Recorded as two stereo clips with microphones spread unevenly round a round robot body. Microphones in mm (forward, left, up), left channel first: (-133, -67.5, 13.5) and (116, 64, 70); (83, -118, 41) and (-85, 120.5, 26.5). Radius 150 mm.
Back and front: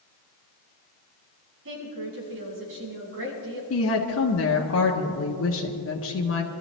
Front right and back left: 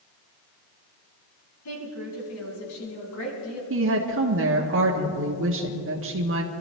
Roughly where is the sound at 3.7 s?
Behind.